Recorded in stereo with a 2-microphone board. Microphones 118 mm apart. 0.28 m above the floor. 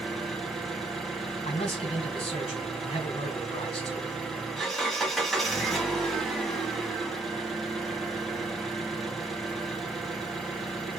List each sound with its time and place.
0.0 s an engine running: centre (ahead or behind), 1.0 m
1.4 s a man speaking: 50° left (ahead or behind), 2 m